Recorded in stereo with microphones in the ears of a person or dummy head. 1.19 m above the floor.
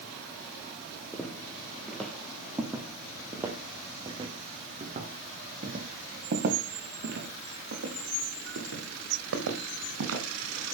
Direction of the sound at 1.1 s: 5° left (ahead or behind).